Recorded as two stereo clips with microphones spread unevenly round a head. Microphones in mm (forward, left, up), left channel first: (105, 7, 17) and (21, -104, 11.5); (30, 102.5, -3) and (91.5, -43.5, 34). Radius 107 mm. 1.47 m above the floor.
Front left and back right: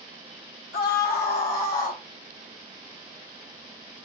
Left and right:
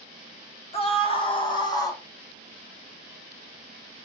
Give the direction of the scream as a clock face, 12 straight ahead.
10 o'clock.